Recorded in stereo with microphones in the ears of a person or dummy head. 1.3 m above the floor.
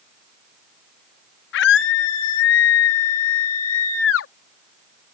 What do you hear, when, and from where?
1.5 s a scream: 65° left (ahead or behind); by 4.3 s 80° left